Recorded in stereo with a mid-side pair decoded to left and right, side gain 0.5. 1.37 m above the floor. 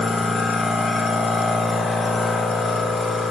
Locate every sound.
0.0 s a machine running: 40° left, 0.8 m